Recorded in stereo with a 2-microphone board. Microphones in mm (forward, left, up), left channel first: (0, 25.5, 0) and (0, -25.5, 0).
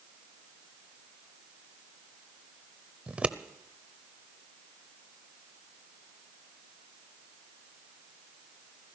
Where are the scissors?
25° right (ahead or behind), 0.6 m.